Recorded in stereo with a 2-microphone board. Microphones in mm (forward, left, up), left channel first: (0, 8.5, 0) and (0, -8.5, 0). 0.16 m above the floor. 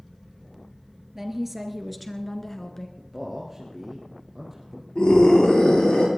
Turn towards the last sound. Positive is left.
turn(degrees=70)  # may be behind; listen again after turning